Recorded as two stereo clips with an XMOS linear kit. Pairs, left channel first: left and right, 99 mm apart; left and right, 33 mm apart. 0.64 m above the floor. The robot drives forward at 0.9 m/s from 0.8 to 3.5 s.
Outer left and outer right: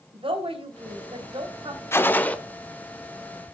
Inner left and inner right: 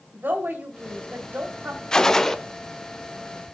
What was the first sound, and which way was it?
A woman speaking, 75° right (ahead or behind).